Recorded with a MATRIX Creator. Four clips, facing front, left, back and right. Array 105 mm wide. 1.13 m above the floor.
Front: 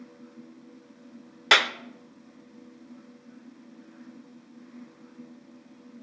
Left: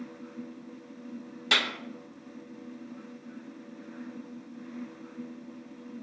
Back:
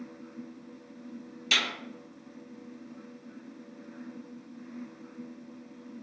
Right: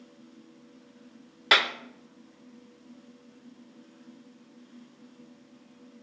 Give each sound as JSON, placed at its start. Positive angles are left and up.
{"t": 1.5, "sound": "a clap", "azimuth_deg": -30, "distance_m": 0.9}